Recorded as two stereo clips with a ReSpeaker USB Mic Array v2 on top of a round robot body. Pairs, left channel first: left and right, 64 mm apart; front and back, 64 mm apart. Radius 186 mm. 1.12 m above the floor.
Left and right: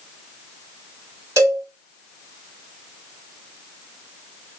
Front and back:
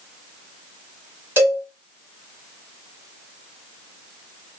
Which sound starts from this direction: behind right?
A cowbell, at 1.4 s.